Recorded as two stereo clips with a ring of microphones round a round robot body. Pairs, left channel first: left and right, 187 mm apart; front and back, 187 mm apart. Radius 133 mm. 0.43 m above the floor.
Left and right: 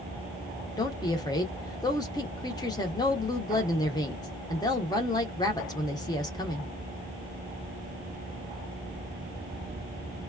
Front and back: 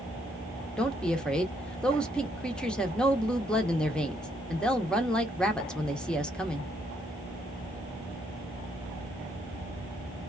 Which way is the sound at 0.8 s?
75° left.